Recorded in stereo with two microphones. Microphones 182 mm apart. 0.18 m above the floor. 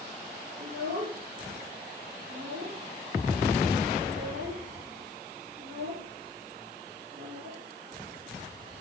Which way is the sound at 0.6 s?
70° right (ahead or behind).